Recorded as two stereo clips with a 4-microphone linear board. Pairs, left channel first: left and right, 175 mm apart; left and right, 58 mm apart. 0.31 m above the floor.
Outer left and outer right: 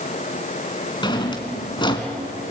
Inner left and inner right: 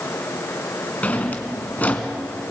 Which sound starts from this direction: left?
A drawer, at 1.0 s.